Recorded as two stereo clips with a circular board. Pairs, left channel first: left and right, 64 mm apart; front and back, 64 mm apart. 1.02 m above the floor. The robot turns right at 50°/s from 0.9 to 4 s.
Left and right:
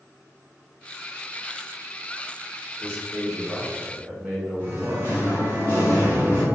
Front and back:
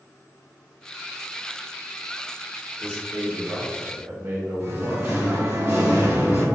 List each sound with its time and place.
2.8 s a man speaking: 150° left, 1.1 m; by 5.5 s 150° right, 1.1 m
4.6 s singing: 135° right, 1.4 m